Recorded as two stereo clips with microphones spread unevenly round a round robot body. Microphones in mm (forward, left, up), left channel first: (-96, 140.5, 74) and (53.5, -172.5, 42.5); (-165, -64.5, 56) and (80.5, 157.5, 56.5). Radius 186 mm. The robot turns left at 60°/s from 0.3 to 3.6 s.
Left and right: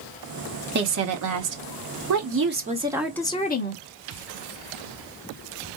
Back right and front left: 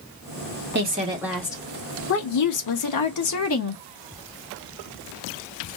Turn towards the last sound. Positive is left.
turn(degrees=175)